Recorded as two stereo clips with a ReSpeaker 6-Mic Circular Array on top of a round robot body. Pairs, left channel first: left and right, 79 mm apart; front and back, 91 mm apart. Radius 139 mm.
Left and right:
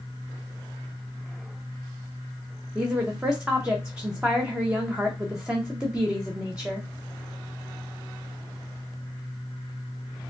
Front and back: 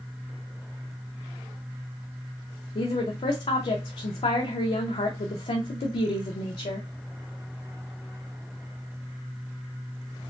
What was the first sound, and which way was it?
A woman speaking, 10° right.